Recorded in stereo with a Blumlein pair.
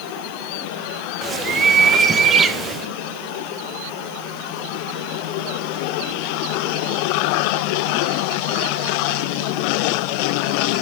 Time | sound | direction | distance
1.2 | a bird | 20° right | 0.8 m